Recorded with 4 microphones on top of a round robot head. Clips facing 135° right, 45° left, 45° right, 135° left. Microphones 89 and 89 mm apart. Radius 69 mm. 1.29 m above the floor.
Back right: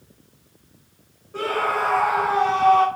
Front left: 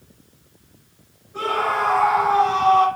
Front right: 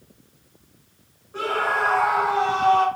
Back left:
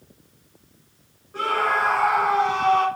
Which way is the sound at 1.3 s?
130° right.